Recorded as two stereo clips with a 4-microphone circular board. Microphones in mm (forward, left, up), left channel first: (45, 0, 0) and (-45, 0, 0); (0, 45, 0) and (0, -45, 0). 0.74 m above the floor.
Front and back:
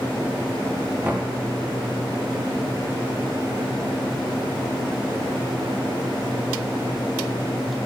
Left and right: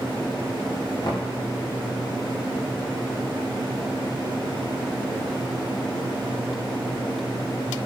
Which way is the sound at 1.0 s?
115° left.